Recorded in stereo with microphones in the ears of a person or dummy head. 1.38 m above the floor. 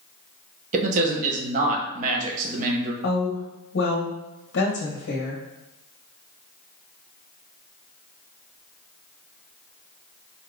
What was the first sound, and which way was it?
A man speaking, 45° right (ahead or behind).